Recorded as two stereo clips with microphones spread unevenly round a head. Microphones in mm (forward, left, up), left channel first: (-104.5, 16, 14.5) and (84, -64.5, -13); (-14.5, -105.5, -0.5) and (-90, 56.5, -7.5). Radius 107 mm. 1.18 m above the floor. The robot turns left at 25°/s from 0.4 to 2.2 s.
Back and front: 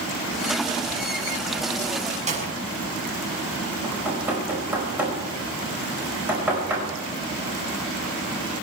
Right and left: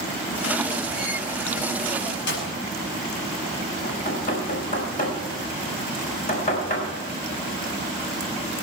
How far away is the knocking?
About 5 m.